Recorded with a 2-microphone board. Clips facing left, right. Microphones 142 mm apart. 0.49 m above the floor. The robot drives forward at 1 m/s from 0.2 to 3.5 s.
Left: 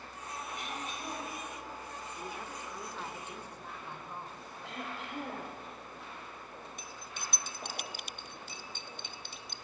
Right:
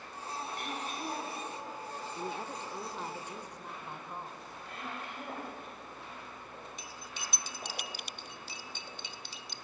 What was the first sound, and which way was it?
Throat clearing, 50° right (ahead or behind).